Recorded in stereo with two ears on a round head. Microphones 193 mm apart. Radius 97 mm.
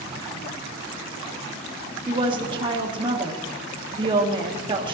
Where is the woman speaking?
25° right (ahead or behind), 1.6 m.